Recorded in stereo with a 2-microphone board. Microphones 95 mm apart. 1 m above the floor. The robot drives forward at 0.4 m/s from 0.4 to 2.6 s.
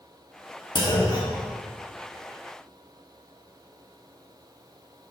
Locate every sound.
0.8 s a clunk: 50° left (ahead or behind), 1.6 m; by 1.5 s 45° left (ahead or behind), 1.7 m